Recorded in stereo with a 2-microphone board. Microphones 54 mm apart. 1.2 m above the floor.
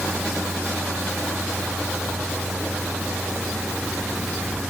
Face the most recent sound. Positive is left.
No sound to turn to.